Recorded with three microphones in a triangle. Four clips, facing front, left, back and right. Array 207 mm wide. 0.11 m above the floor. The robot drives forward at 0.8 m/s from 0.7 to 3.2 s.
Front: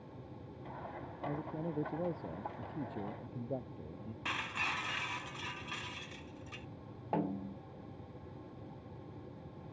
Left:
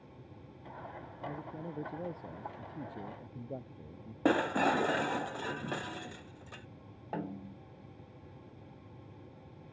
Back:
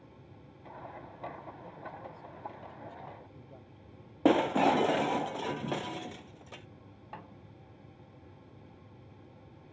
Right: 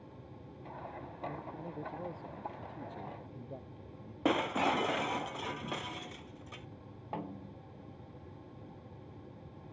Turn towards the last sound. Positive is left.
turn(degrees=15)